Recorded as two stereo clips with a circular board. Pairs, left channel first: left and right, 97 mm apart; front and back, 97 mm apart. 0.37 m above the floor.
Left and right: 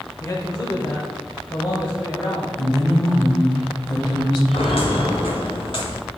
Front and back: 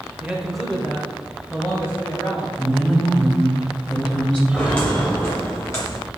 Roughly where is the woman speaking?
Left.